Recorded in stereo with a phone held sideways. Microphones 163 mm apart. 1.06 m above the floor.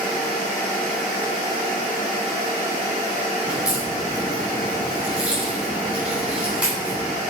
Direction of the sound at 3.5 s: 10° right (ahead or behind).